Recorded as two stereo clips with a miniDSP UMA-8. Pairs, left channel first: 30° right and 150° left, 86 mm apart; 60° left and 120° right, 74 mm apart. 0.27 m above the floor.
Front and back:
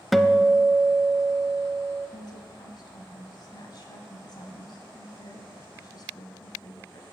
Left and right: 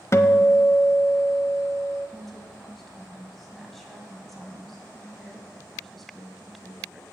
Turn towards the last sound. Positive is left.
turn(degrees=-30)